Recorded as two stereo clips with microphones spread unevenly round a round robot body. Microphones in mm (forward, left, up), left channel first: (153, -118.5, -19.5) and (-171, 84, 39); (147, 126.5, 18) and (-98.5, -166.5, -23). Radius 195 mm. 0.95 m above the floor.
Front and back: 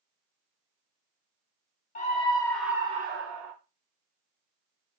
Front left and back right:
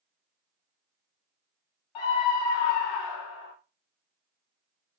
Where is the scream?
35° left, 1.1 m; by 3.5 s 120° left, 0.6 m.